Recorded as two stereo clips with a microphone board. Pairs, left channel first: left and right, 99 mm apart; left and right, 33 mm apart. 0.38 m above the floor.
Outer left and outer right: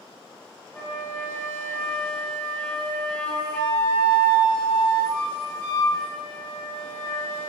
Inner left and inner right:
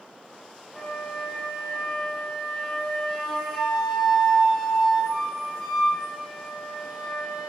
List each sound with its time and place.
0.7 s a flute: 5° left (ahead or behind), 1.4 m